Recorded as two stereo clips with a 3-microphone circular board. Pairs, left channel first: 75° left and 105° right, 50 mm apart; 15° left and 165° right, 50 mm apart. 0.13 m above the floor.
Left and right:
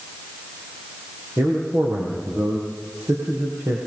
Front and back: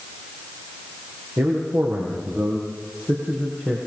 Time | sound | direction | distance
1.4 | a man speaking | 130° right | 6 m